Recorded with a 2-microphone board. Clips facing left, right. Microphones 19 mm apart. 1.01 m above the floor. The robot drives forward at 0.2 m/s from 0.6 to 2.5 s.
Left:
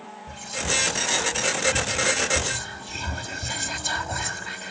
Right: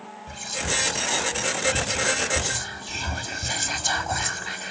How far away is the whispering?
About 2.5 m.